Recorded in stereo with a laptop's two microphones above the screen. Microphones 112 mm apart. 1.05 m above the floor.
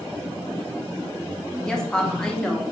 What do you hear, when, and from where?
1.6 s a woman speaking: 5° left (ahead or behind), 0.9 m